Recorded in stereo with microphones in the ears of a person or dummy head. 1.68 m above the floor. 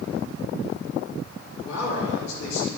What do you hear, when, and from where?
1.6 s a man speaking: 70° left (ahead or behind), 3 m